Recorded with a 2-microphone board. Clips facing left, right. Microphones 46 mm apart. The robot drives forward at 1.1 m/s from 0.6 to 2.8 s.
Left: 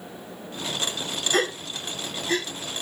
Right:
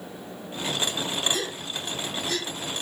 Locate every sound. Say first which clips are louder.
1.3 s a gasp: left 6 dB; 60° left (ahead or behind), 1.4 m; by 2.5 s 35° left (ahead or behind), 2 m